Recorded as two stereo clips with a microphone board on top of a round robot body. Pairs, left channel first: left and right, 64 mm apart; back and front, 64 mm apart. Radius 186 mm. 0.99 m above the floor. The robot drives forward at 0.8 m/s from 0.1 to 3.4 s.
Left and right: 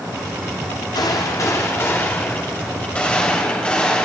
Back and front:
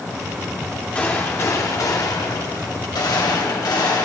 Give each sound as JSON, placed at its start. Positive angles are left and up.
{"t": 0.9, "sound": "a gunshot", "azimuth_deg": 110, "distance_m": 0.9}